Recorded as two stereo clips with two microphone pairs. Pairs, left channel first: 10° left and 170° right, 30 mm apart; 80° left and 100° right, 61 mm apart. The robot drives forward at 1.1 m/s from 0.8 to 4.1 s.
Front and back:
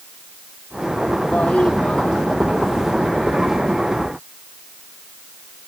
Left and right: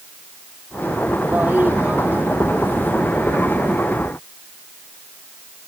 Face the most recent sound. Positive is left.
turn(degrees=-40)